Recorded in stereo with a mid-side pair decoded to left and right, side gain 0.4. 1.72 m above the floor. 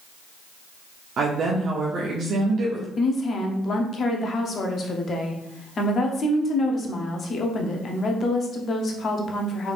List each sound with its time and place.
1.2 s a woman speaking: 60° right, 0.9 m
3.0 s a woman speaking: 50° left, 0.9 m